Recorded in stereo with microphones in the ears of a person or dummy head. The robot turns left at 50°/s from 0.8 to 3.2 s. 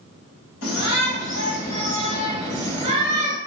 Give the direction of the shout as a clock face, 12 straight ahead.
9 o'clock.